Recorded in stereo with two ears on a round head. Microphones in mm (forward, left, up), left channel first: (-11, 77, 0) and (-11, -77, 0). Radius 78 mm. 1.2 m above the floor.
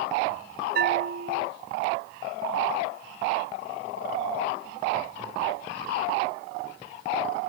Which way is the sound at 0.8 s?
65° right (ahead or behind).